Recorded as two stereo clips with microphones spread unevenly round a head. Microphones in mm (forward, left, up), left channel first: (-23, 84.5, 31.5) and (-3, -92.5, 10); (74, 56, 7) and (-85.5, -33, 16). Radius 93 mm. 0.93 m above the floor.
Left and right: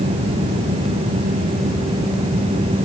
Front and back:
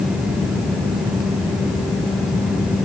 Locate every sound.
Only background noise.